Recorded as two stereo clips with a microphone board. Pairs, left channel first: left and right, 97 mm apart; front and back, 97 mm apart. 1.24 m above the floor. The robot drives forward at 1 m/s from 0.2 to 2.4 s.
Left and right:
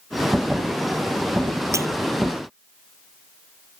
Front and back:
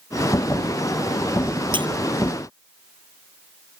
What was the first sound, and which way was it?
Breaking glass, 150° right.